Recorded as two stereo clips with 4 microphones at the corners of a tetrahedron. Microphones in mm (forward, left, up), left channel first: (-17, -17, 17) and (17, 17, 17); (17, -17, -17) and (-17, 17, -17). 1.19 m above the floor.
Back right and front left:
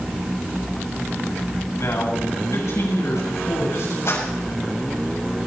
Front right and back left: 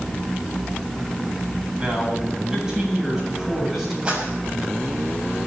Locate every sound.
1.8 s a man speaking: 155° right, 7.5 m; by 4.0 s 140° right, 7 m
4.0 s a clap: 155° right, 6.5 m